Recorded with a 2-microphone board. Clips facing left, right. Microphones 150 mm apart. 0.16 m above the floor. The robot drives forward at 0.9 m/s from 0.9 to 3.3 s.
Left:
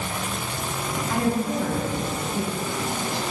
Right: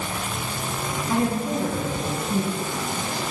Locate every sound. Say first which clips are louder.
1.1 s a woman speaking: right 1 dB; 25° right (ahead or behind), 2.5 m; by 3.2 s 45° right (ahead or behind), 1.5 m